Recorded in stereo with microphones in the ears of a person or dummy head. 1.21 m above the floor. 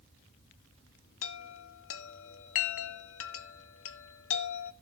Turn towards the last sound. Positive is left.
turn(degrees=65)  # may be behind; listen again after turning